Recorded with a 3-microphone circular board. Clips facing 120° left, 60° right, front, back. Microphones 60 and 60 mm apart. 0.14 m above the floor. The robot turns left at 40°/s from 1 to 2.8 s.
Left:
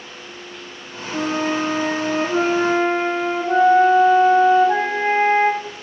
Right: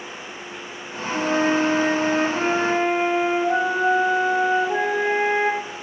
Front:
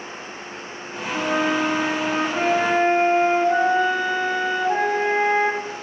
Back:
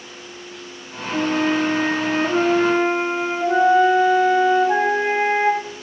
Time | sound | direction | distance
1.1 | a flute | straight behind | 1.7 m